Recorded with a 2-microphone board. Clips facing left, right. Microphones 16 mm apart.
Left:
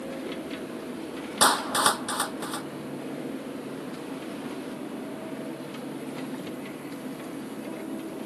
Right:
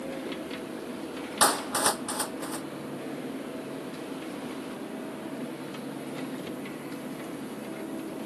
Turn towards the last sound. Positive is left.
turn(degrees=35)  # may be behind; listen again after turning